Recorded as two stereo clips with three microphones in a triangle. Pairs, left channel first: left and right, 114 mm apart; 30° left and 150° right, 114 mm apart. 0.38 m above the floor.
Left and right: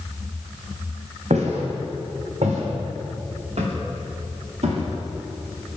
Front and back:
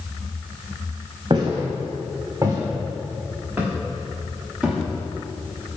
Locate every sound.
1.3 s footsteps: 100° right, 2.5 m; by 5.8 s 60° right, 4.5 m